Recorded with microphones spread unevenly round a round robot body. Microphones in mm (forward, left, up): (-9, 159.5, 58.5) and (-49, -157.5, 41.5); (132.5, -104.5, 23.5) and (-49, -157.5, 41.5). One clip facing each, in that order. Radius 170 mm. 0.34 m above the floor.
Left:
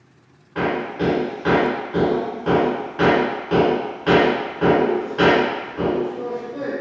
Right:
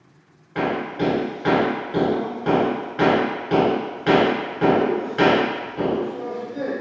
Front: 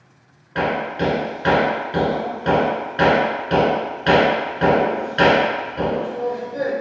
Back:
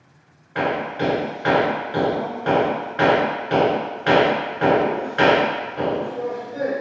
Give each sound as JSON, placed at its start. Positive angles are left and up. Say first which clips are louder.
{"t": 0.6, "sound": "hammering", "louder": "left 1 dB, front 1 dB", "azimuth_deg": -30, "distance_m": 1.2}